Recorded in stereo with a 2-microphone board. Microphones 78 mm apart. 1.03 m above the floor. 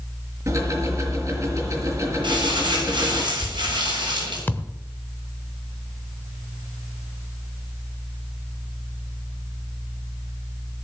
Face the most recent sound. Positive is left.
turn(degrees=25)  # may be behind; listen again after turning